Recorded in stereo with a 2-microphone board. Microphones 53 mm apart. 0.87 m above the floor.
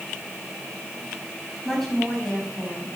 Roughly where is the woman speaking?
Centre.